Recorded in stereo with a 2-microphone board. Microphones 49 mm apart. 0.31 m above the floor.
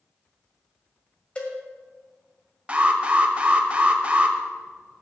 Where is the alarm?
25° right (ahead or behind), 1.0 m.